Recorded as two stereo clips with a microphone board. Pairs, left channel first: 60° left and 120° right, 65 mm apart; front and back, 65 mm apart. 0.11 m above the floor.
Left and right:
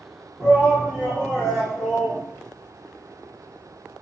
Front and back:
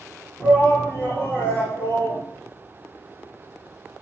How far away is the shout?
About 4 m.